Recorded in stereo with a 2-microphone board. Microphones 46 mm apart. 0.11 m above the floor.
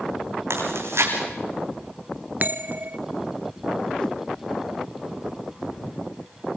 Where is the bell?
40° right (ahead or behind), 0.9 m.